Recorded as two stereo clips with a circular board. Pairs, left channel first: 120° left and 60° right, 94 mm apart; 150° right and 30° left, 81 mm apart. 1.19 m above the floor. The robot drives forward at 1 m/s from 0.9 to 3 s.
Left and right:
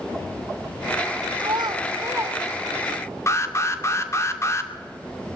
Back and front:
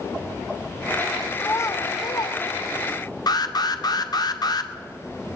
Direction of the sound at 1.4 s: 90° right.